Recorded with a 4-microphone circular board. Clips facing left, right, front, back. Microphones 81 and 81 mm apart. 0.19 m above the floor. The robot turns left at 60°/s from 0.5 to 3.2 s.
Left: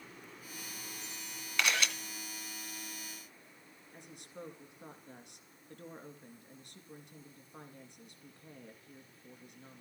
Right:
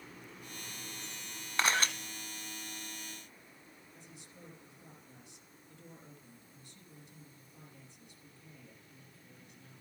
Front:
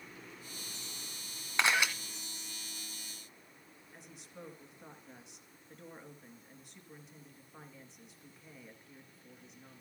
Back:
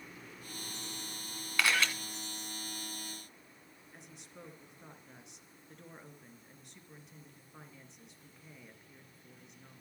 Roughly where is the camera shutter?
Ahead right.